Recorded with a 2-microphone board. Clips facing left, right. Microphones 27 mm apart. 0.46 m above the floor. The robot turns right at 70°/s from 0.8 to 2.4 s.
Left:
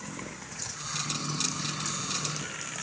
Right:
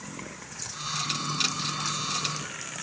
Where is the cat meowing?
I don't hear a cat meowing.